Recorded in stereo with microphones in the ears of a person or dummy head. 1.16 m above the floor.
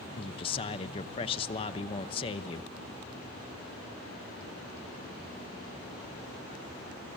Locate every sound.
0.1 s a man speaking: 25° left (ahead or behind), 0.8 m